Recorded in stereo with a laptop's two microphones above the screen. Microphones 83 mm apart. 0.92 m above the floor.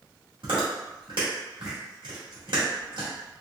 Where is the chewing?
75° right (ahead or behind), 1.8 m.